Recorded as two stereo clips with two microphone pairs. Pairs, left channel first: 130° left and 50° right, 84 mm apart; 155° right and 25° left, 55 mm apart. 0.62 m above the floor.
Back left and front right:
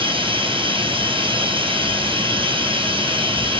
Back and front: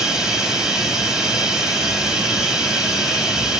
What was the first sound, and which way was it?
Running water, 50° right.